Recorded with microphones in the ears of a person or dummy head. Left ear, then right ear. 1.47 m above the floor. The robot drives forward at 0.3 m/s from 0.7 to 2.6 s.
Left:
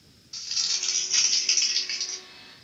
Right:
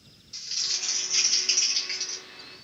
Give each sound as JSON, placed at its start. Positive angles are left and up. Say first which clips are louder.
{"t": 0.3, "sound": "crumpling", "louder": "left 2 dB", "side_deg": 10, "distance_m": 0.9}